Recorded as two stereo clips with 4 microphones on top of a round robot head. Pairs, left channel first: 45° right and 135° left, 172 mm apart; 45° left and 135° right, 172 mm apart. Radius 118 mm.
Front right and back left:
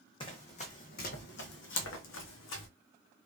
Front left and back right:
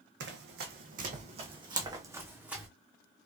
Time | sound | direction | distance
0.2 | running footsteps | 110° right | 1.2 m